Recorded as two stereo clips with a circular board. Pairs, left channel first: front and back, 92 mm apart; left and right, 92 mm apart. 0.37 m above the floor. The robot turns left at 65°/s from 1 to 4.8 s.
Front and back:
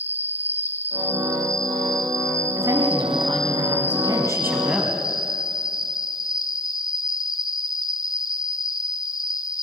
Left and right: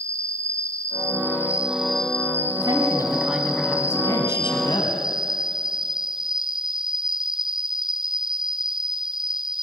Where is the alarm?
No alarm in this recording.